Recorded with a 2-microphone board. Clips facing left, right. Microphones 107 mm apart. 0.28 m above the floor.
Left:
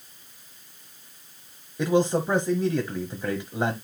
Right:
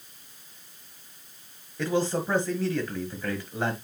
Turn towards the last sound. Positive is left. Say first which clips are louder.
# left 4 dB
turn(degrees=20)  # may be behind; listen again after turning